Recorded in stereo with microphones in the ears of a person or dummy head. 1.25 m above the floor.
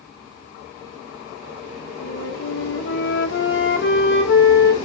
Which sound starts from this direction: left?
A flute, at 2.0 s.